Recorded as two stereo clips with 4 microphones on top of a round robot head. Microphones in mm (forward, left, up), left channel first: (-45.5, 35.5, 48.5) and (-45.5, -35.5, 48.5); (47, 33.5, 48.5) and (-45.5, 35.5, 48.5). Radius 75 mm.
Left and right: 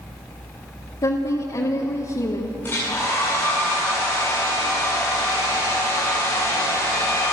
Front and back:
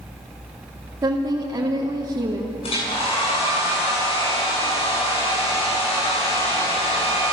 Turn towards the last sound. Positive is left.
turn(degrees=20)